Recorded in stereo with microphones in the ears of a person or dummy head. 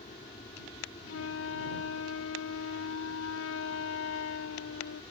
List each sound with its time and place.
0.0 s an aircraft: 25° left (ahead or behind)
1.1 s a flute: 70° left (ahead or behind)